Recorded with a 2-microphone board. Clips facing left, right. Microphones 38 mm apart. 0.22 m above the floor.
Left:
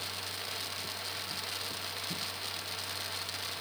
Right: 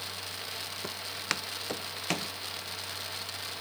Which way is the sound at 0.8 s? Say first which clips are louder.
Right 4 dB; 85° right.